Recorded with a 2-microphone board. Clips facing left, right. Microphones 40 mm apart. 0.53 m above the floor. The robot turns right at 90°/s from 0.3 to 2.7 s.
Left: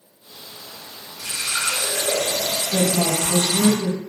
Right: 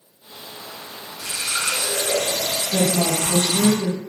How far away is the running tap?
About 1.8 m.